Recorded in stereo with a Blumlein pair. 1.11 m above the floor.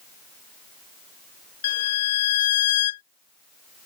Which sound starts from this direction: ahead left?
A violin, at 1.6 s.